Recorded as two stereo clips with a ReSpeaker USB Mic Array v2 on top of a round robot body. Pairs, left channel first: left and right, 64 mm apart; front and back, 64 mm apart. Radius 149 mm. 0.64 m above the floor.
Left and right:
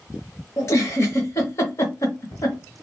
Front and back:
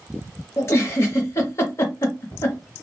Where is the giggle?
45° left, 0.5 m.